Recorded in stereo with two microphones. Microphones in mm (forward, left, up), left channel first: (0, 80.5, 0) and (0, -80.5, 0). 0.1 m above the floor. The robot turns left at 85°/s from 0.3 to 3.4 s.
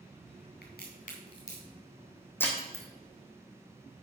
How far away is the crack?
About 3 m.